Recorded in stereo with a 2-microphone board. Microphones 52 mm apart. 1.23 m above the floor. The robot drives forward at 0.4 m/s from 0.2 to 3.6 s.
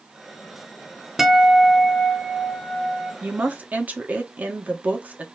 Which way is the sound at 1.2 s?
5° right (ahead or behind).